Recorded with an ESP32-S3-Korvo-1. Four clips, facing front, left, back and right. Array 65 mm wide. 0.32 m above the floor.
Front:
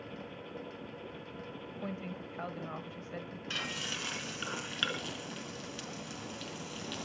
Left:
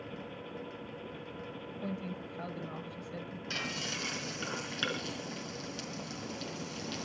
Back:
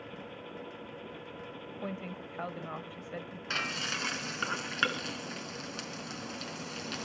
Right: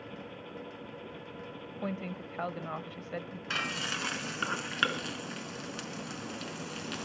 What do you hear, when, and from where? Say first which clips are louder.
1.8 s a woman speaking: right 3 dB, back 1 dB; 110° right, 1.2 m
3.5 s frying: right 5 dB, back 5 dB; 135° right, 4 m